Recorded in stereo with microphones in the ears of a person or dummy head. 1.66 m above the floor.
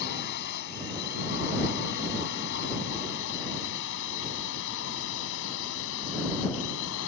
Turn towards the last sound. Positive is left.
turn(degrees=65)  # may be behind; listen again after turning